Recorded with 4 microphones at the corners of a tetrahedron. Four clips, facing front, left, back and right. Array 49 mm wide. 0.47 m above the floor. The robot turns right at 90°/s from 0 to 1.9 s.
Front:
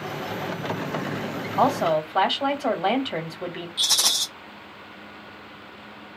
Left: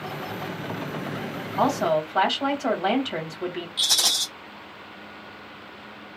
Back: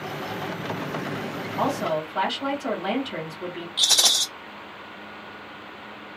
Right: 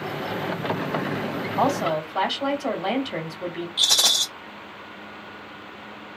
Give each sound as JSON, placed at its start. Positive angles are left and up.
{"t": 1.6, "sound": "a woman speaking", "azimuth_deg": -15, "distance_m": 1.5}
{"t": 3.8, "sound": "a rattle", "azimuth_deg": -150, "distance_m": 1.9}